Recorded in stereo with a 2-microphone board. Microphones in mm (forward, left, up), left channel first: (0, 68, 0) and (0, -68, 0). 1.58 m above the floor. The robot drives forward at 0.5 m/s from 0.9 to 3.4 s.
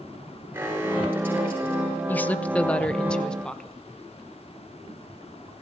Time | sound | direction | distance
0.5 | an alarm | 15° right (ahead or behind) | 7 m
2.1 | a woman speaking | 15° left (ahead or behind) | 0.6 m